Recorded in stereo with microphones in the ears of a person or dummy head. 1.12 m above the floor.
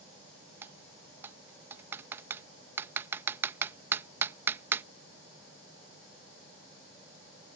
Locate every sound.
0.6 s typing on a keyboard: 15° right (ahead or behind)